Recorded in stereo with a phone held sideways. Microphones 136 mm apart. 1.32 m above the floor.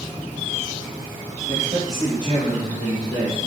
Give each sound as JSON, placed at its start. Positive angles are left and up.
{"t": 1.5, "sound": "a man speaking", "side_deg": -45, "distance_m": 1.6}